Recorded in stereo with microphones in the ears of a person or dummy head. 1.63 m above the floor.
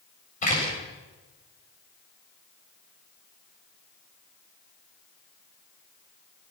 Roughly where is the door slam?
Left.